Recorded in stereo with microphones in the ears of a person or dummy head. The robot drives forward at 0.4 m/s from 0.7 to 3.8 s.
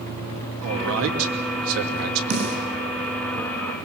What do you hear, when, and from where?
0.6 s a man speaking: 75° right (ahead or behind), 3 m; by 2.2 s 85° right, 3 m
2.3 s a snare drum: 55° right (ahead or behind), 8 m; by 2.6 s 50° right (ahead or behind), 8 m